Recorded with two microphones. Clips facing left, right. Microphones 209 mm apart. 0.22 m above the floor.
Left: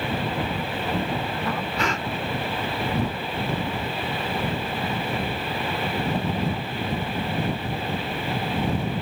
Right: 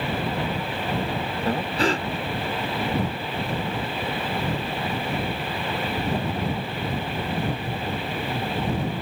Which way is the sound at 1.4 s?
35° right (ahead or behind).